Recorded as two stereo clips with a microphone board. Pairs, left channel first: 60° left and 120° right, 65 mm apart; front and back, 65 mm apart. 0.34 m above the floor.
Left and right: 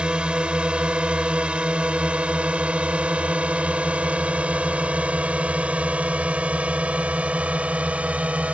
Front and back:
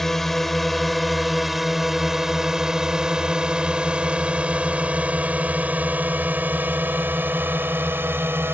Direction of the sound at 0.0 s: 80° right.